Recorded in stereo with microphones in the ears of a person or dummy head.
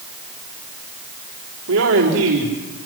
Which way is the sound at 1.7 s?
85° right.